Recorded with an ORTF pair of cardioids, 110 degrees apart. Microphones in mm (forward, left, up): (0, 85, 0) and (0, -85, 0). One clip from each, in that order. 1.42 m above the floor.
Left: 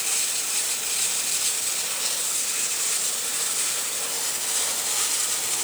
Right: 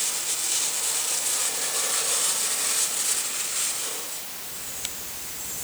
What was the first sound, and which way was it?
Only background noise.